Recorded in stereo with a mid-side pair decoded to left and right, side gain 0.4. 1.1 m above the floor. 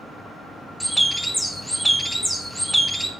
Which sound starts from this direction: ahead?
A bird, at 0.8 s.